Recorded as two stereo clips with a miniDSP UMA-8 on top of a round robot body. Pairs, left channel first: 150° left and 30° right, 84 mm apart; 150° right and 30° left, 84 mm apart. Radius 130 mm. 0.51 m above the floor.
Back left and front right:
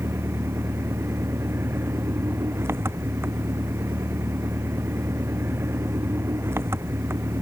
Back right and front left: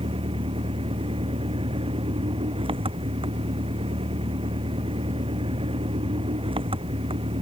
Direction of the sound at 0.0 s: 30° left.